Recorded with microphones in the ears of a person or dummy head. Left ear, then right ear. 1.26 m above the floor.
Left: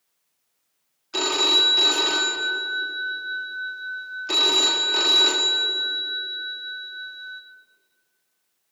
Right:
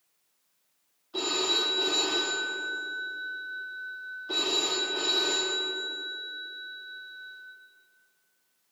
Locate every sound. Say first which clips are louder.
1.1 s a phone ringing: left 8 dB; 70° left (ahead or behind), 1.6 m